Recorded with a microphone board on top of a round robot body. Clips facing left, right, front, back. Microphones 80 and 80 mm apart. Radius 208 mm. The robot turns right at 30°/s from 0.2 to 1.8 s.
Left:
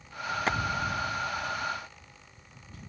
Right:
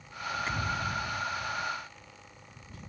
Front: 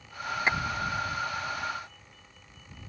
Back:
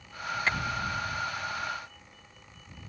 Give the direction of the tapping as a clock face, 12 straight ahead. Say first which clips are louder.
Left 8 dB, front 2 dB; 10 o'clock.